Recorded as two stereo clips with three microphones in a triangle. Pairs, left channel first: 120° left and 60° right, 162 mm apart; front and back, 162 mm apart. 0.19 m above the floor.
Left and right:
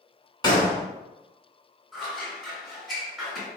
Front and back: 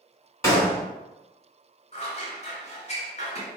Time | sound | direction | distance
0.4 | a gunshot | 65° left | 1.2 m
1.9 | scissors | 30° left | 1.8 m